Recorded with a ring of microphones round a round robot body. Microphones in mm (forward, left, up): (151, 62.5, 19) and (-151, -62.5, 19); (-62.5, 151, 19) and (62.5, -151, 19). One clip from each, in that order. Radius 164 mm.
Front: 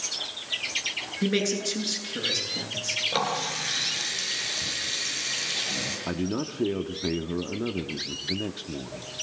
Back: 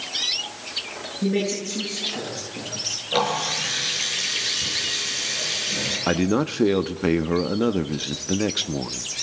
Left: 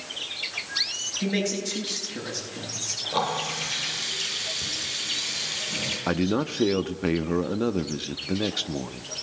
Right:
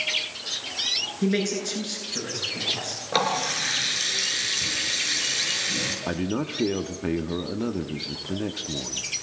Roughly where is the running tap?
Ahead right.